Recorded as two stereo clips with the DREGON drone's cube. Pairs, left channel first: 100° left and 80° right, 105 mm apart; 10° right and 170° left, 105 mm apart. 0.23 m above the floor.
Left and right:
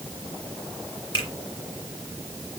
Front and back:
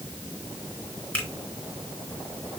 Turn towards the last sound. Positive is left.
turn(degrees=65)